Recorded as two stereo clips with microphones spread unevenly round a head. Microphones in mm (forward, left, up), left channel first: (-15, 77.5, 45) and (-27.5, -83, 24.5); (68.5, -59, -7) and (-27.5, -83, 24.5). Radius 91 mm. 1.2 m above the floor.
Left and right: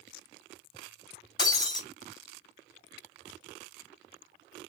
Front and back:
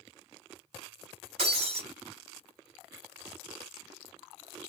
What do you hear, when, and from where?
1.4 s breaking glass: 150° left, 2.5 m